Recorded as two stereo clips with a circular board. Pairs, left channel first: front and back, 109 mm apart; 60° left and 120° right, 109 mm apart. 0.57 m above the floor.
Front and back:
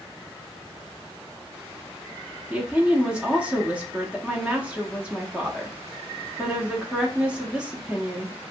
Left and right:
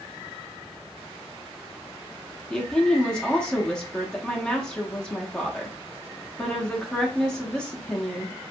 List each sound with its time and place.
2.5 s a woman speaking: 130° left, 0.6 m